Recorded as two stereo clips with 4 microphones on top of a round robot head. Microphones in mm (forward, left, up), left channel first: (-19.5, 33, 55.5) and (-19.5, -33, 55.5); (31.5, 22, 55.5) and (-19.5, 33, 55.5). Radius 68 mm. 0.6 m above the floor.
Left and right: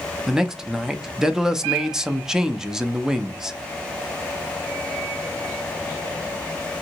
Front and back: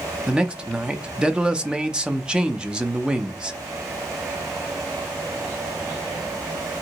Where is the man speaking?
160° right, 0.5 m.